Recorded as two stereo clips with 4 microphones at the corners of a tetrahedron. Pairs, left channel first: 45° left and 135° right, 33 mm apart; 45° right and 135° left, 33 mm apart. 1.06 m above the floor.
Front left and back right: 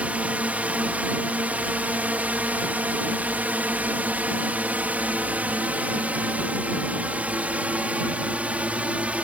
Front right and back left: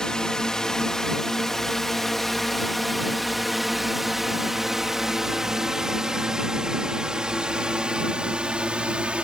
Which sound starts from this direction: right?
A drone, at 0.0 s.